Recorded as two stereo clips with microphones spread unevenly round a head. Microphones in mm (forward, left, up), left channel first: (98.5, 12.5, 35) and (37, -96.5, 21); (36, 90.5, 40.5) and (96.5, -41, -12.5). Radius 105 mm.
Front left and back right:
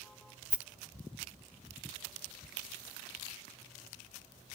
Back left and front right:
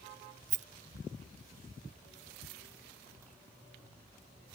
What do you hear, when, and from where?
0.5 s a rattle: 40° right